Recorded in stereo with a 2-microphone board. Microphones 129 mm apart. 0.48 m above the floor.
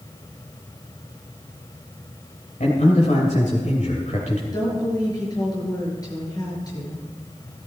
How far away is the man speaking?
About 2.5 m.